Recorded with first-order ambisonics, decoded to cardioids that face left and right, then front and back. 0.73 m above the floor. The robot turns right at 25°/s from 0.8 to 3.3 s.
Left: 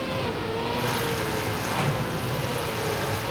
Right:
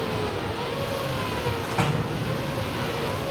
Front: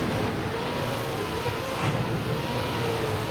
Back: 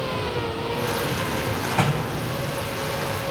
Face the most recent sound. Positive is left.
turn(degrees=-125)